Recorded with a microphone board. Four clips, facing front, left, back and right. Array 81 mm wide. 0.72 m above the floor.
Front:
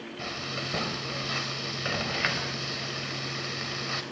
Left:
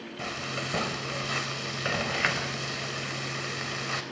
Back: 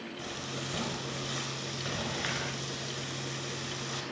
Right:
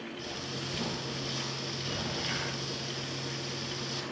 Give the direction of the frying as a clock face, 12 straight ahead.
10 o'clock.